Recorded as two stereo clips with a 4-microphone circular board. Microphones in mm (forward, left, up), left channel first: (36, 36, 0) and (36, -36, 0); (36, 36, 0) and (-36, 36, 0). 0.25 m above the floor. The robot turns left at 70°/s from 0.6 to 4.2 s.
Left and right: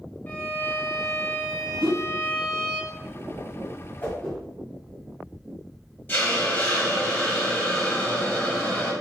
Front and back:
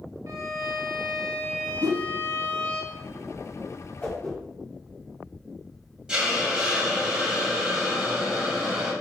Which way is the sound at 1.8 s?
165° right.